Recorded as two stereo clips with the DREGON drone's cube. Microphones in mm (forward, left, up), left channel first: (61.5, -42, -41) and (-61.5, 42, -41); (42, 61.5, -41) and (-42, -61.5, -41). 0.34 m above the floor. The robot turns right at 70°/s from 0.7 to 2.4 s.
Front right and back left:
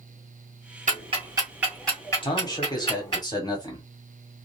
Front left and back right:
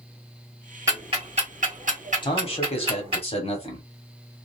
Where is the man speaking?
10° left, 1.5 m; by 3.9 s 20° left, 1.5 m.